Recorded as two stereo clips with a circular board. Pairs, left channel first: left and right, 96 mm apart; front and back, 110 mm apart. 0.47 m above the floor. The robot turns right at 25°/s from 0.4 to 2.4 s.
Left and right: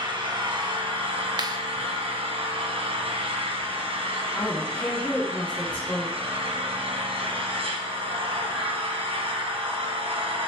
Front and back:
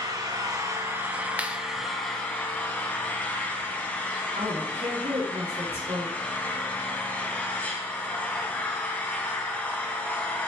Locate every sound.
0.0 s an engine running: 125° right, 2 m; by 10.5 s 75° right, 2 m
1.4 s a clap: 110° right, 1.1 m; by 1.6 s 105° right, 1.1 m
4.3 s a woman speaking: 165° left, 3.5 m